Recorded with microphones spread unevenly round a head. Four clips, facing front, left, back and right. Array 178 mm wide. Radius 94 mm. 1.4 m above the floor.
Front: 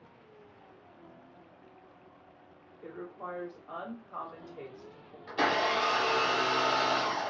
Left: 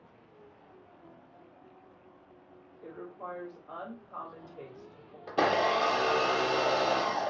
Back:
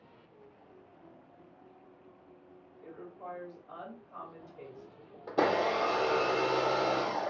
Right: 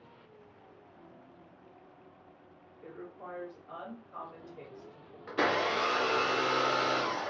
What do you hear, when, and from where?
2.8 s a woman speaking: 15° left, 1.9 m
5.3 s a blender: 145° left, 0.6 m